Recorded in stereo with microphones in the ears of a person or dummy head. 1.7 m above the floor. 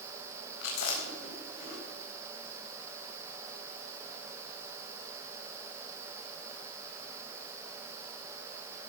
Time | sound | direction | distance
0.6 | chewing | 65° left (ahead or behind) | 4 m